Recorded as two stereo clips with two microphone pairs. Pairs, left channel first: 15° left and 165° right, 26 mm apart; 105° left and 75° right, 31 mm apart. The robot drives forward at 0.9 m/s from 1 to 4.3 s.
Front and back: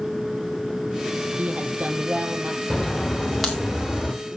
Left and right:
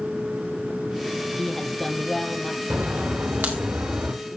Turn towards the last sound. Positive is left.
turn(degrees=-85)